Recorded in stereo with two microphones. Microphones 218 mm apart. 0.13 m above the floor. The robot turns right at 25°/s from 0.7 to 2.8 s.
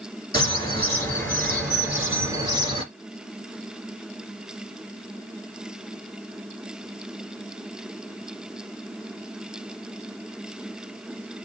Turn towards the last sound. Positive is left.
turn(degrees=-150)